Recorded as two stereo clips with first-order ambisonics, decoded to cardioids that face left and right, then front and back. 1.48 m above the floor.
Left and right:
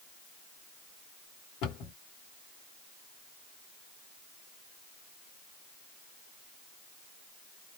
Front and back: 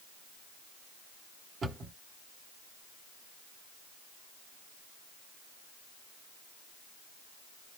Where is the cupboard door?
115° left, 1.4 m.